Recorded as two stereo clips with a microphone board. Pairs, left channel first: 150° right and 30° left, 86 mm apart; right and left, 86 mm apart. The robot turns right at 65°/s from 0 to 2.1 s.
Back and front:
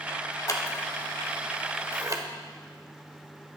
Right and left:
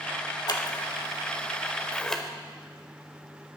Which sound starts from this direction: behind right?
Scissors, at 0.5 s.